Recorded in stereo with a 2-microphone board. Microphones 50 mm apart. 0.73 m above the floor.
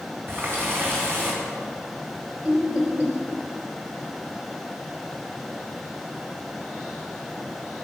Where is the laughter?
25° right (ahead or behind), 3 m.